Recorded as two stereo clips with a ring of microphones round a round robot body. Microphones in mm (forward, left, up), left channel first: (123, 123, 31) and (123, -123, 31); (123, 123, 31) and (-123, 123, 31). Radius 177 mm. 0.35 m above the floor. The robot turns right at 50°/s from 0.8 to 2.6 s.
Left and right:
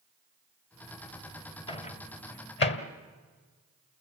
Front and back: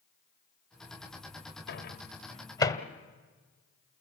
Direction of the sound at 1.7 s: 25° left.